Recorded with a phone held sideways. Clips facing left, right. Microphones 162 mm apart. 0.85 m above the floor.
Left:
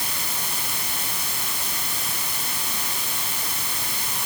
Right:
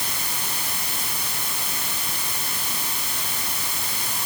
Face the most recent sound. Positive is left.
No sound to turn to.